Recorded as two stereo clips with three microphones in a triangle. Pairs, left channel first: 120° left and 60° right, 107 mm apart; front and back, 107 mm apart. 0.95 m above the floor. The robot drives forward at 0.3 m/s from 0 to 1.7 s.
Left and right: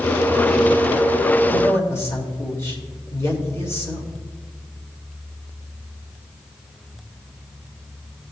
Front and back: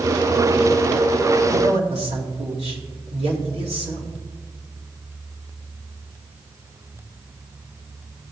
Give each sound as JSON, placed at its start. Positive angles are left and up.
{"t": 1.5, "sound": "a man speaking", "azimuth_deg": -175, "distance_m": 2.0}